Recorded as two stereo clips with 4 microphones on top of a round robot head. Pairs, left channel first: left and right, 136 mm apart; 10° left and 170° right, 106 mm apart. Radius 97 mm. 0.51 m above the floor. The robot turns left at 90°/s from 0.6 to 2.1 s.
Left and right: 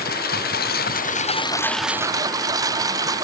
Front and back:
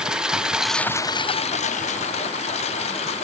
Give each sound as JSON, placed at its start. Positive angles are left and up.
{"t": 0.0, "sound": "a lawn mower", "azimuth_deg": 110}